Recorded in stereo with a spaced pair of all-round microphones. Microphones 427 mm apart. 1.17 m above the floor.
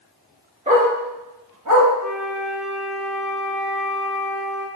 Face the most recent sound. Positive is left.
turn(degrees=5)  # may be behind; listen again after turning